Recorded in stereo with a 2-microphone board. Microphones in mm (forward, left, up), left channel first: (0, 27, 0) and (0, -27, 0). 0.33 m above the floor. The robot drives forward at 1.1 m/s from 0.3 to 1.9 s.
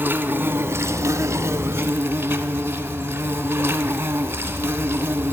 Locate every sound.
0.0 s an insect: 40° right (ahead or behind), 1.2 m